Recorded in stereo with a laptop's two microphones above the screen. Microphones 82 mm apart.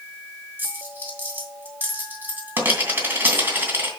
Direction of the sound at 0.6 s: 25° right (ahead or behind).